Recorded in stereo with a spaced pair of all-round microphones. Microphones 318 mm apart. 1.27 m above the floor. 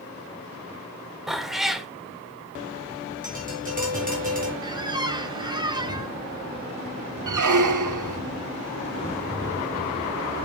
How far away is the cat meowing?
About 1.0 m.